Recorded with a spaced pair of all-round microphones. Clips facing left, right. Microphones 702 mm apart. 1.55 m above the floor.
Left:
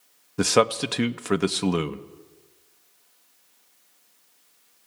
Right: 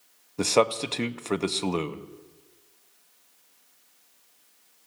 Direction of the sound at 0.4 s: 50° left (ahead or behind).